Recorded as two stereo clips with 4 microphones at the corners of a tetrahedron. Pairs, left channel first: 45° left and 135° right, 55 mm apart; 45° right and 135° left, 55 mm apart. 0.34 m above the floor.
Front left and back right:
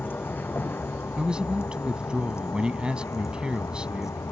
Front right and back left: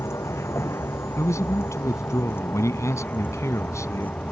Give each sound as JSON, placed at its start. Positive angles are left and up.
{"t": 0.0, "sound": "a vehicle", "azimuth_deg": -10}
{"t": 1.2, "sound": "a man speaking", "azimuth_deg": -60}